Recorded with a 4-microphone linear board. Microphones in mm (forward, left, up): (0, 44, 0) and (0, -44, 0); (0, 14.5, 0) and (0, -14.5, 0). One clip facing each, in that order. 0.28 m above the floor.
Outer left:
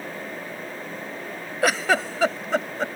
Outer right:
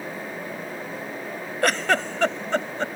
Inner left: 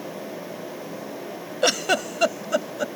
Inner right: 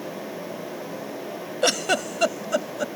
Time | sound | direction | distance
1.6 | a giggle | 5° left (ahead or behind) | ?